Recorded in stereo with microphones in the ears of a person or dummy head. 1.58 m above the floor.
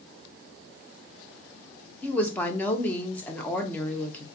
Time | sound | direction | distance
2.0 | a woman speaking | 10° left (ahead or behind) | 1.0 m